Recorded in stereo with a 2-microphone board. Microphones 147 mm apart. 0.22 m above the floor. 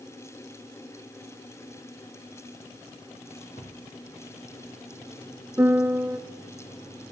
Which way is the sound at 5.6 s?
15° right (ahead or behind).